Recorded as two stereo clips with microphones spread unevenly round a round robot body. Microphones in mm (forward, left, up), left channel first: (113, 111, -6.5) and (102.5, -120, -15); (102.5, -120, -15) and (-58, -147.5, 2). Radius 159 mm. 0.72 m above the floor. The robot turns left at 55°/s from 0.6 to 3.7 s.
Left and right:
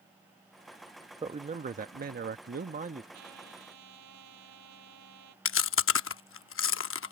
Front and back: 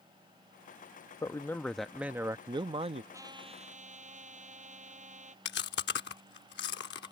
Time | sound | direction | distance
1.2 | a man speaking | 40° right | ?
3.1 | a trumpet | 95° right | ?
5.5 | chewing | 55° left | ?